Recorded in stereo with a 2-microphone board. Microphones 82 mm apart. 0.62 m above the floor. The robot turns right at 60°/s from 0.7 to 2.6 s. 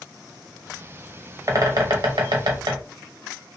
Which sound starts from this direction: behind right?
A bird, at 1.5 s.